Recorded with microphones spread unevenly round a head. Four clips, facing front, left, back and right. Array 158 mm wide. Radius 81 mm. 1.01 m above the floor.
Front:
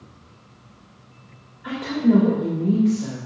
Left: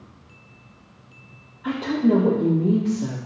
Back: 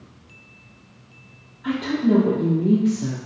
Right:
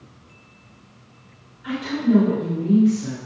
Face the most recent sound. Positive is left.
turn(degrees=125)